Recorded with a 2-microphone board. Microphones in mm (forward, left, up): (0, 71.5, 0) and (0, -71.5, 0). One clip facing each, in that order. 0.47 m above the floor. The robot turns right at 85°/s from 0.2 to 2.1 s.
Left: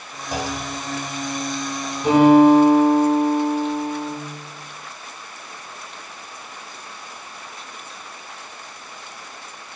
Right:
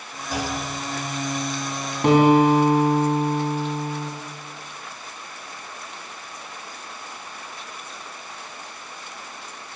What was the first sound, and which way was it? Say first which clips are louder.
A clunk: left 1 dB; 25° left (ahead or behind).